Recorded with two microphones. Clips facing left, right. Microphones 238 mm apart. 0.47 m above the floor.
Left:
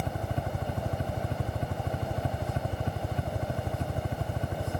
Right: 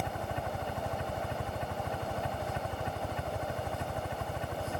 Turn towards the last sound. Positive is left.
turn(degrees=35)  # may be behind; listen again after turning